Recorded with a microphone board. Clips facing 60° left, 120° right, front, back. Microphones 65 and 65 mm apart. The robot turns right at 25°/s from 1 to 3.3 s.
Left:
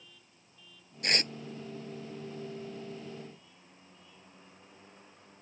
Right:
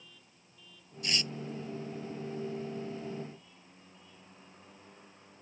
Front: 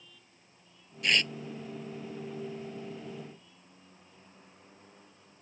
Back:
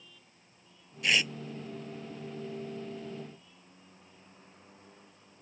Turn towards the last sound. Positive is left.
turn(degrees=150)